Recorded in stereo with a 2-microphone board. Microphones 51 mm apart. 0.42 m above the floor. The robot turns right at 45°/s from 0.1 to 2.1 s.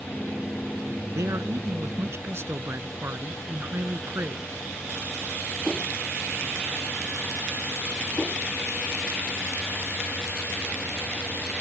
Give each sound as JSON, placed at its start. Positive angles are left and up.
{"t": 1.1, "sound": "a man speaking", "azimuth_deg": -100}